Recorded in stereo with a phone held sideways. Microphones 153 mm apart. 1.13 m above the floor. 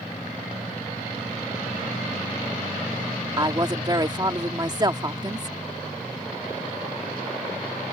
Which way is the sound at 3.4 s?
30° right (ahead or behind).